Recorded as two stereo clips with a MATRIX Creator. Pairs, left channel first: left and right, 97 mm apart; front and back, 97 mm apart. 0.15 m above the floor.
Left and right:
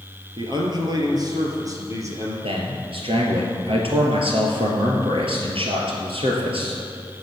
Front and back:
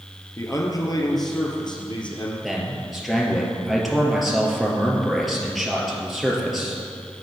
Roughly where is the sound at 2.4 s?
Right.